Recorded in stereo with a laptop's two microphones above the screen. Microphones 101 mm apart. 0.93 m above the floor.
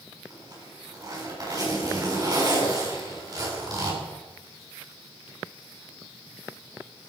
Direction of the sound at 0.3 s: 40° right (ahead or behind).